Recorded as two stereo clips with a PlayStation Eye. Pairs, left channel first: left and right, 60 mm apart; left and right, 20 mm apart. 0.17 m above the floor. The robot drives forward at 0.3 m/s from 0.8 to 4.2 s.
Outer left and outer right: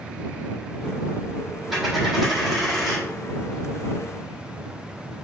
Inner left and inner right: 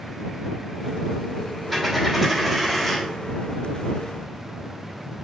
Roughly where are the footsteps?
No footsteps in this recording.